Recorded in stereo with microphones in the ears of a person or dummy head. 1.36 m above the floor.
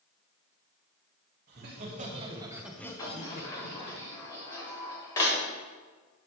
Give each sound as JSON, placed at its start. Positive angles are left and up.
{"t": 1.5, "sound": "laughter", "side_deg": -55, "distance_m": 2.0}
{"t": 3.0, "sound": "a sliding door", "side_deg": 20, "distance_m": 1.4}